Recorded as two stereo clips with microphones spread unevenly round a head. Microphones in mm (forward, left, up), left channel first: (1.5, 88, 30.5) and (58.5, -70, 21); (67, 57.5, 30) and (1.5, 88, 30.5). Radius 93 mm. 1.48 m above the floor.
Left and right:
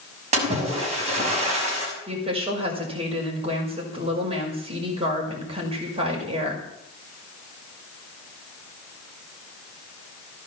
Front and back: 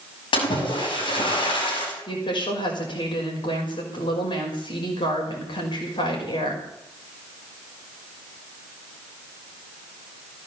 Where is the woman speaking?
10° right, 5.5 m.